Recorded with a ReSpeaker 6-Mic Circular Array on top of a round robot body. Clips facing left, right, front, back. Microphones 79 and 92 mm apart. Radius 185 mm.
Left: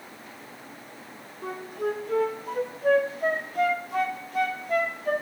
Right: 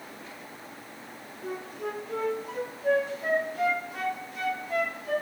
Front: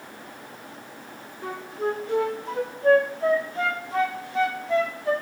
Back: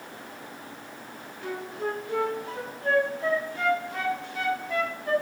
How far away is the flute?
About 0.7 m.